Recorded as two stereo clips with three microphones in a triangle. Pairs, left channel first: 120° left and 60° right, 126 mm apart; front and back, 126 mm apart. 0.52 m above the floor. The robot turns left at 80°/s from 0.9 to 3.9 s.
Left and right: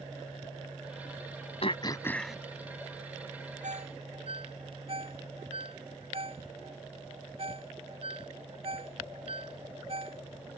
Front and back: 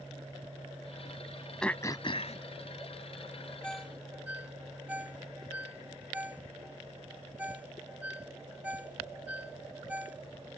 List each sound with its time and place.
1.6 s throat clearing: 85° left; by 2.4 s 25° left
3.6 s a ringtone: 80° right; by 10.2 s 100° right